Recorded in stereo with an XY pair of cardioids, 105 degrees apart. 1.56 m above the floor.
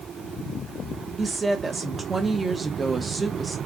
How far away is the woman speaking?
About 1.1 m.